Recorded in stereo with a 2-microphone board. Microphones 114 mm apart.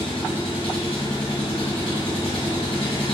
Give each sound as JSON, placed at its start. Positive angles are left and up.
{"t": 0.0, "sound": "an engine running", "side_deg": 60, "distance_m": 4.5}